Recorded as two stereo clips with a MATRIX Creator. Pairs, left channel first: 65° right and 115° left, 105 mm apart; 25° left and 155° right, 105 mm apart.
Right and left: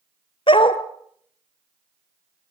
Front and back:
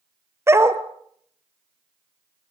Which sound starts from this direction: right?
A dog barking, at 0.5 s.